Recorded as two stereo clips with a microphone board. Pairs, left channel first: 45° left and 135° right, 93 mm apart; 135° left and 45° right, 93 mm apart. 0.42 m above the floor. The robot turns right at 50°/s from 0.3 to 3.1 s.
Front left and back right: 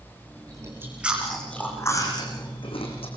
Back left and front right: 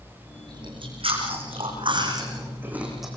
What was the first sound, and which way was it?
Chewing, 85° right.